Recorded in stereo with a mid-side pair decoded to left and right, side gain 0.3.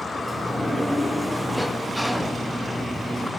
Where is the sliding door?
5° left, 1.0 m.